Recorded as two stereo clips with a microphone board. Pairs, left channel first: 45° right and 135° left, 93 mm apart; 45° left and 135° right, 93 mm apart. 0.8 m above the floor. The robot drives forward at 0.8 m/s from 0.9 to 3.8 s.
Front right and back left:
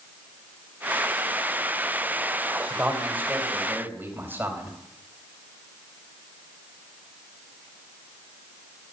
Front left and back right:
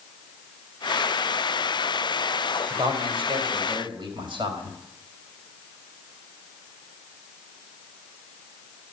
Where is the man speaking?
155° right, 3 m; by 4.8 s 160° right, 4 m.